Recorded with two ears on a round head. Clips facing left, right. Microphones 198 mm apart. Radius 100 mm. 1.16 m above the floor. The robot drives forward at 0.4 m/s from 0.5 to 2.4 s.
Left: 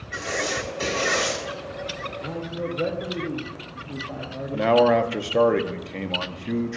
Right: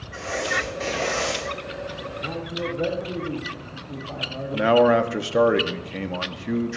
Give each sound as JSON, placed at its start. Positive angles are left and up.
{"t": 0.1, "sound": "writing", "side_deg": 55, "distance_m": 5.0}
{"t": 2.2, "sound": "a man speaking", "side_deg": 10, "distance_m": 1.2}
{"t": 4.5, "sound": "a man speaking", "side_deg": -5, "distance_m": 0.6}